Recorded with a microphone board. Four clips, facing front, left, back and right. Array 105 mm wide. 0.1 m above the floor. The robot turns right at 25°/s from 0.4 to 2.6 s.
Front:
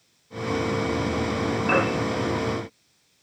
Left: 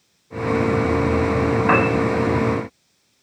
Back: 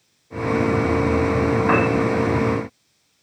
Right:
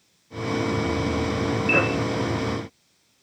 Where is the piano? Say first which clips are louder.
Left 5 dB, back 2 dB; 115° left, 8.5 m; by 1.9 s 120° left, 8.5 m.